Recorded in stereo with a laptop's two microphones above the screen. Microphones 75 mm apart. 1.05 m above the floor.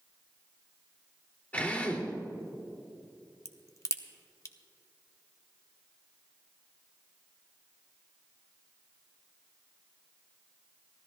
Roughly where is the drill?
Centre.